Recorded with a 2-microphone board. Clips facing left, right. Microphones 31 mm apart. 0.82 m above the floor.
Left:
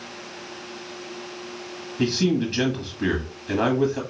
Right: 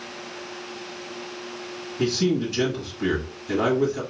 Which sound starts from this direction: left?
A man speaking, at 2.0 s.